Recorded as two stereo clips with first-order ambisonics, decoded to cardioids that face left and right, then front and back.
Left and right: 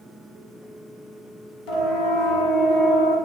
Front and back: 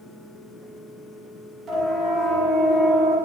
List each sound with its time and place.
1.7 s a siren: 105° left, 7 m; by 3.1 s 110° left, 7.5 m